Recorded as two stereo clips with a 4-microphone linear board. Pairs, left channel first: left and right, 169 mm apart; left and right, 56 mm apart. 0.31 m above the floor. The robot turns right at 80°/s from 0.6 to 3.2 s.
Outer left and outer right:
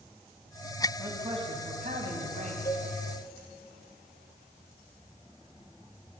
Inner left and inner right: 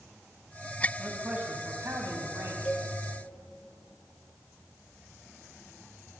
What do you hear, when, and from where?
1.0 s a man speaking: 170° right, 1.8 m; by 2.5 s 45° right, 1.8 m
2.6 s a cowbell: 15° left (ahead or behind), 1.7 m; by 2.9 s 35° left (ahead or behind), 1.7 m